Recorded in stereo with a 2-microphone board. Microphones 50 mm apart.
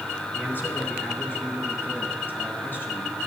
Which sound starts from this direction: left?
A man speaking, at 0.3 s.